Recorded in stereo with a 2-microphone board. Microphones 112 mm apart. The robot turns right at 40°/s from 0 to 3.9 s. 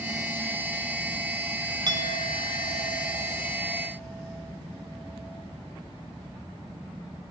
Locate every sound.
1.9 s a clink: 85° right, 0.9 m; by 5.4 s straight ahead, 0.9 m